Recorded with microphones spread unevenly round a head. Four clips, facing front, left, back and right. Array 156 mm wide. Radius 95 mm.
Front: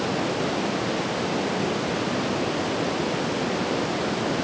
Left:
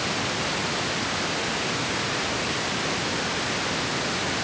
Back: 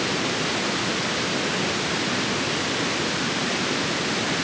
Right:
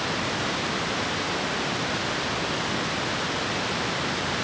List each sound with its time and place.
Only background noise.